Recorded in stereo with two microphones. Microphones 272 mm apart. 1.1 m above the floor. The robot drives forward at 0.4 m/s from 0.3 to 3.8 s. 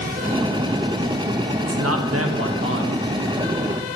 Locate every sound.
1.7 s a man speaking: 65° right (ahead or behind), 1.1 m; by 3.1 s 45° right (ahead or behind), 1.5 m